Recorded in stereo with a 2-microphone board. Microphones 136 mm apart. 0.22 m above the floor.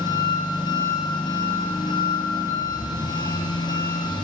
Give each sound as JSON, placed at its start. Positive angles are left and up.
{"t": 0.0, "sound": "an engine running", "side_deg": 30, "distance_m": 2.0}